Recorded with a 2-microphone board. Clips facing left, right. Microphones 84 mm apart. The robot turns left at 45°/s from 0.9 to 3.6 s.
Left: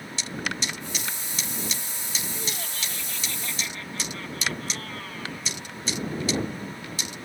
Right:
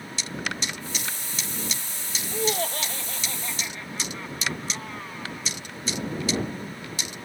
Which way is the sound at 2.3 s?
105° right.